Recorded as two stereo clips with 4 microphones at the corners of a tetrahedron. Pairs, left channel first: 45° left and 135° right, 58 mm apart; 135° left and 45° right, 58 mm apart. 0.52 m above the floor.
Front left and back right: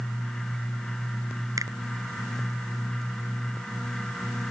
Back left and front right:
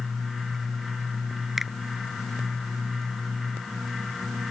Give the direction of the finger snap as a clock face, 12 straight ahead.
4 o'clock.